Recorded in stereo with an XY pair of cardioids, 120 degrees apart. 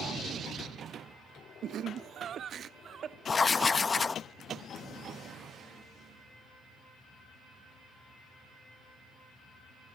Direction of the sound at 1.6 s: 60° right.